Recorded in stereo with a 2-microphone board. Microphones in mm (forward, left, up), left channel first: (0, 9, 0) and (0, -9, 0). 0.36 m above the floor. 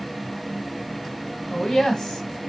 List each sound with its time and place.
1.5 s a woman speaking: 45° left (ahead or behind), 1.4 m